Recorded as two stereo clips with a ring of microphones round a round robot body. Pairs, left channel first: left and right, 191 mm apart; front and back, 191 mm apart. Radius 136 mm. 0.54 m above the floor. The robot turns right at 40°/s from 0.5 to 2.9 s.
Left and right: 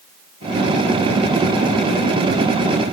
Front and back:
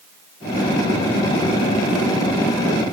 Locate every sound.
Only background noise.